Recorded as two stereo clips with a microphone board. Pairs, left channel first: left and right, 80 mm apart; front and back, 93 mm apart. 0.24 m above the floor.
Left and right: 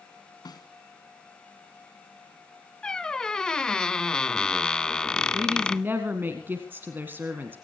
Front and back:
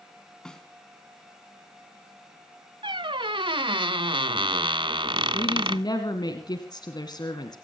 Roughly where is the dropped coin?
I don't hear a dropped coin.